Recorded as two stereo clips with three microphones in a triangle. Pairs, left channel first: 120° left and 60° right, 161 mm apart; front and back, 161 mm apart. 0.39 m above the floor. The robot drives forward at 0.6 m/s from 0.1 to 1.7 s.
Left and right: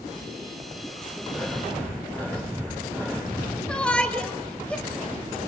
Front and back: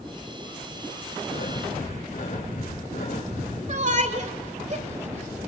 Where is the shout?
160° right, 1.6 m.